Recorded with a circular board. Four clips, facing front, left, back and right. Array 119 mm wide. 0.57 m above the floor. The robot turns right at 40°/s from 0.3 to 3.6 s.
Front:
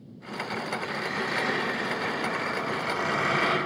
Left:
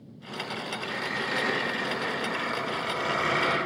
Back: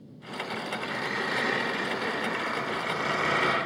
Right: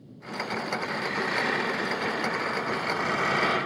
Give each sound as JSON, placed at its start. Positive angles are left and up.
{"t": 0.8, "sound": "a squeak", "azimuth_deg": -120, "distance_m": 1.8}